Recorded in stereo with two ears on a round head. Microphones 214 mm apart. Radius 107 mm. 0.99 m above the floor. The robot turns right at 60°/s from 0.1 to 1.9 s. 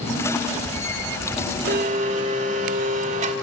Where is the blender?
45° right (ahead or behind), 2.5 m; by 3.3 s 30° right (ahead or behind), 2.5 m.